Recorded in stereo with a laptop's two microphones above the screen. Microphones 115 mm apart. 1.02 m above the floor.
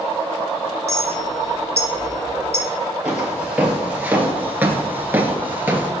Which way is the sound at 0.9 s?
70° right (ahead or behind).